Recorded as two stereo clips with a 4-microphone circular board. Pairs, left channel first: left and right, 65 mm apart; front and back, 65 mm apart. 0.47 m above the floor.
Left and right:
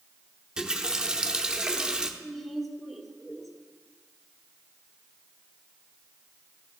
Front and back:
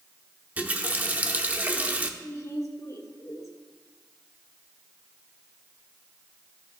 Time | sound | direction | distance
0.6 | a running tap | 150° right | 0.7 m
2.2 | a woman speaking | straight ahead | 1.2 m